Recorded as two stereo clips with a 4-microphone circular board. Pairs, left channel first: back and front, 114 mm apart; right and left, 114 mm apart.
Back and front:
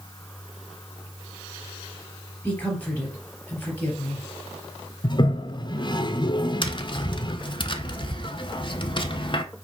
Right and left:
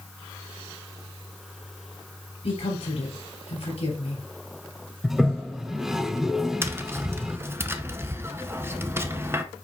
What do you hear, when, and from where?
2.4 s a woman speaking: 105° right, 4 m
5.0 s a toilet flushing: 175° left, 0.5 m
6.6 s tapping: 155° left, 0.8 m